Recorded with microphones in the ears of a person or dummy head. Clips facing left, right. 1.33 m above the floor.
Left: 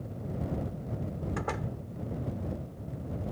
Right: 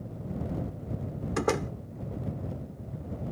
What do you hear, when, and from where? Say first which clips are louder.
1.4 s a door slam: right 11 dB; 55° right (ahead or behind)